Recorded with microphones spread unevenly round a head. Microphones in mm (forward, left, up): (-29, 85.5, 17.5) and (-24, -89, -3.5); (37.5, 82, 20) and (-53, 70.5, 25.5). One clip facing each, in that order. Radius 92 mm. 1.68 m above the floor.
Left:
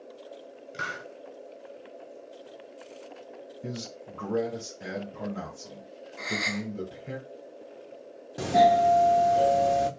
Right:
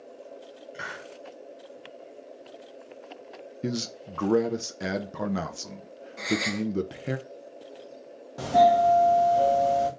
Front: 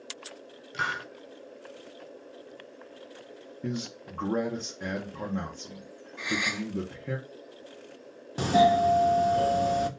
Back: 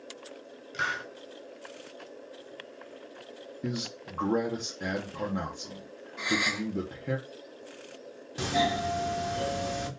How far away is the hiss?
About 0.9 m.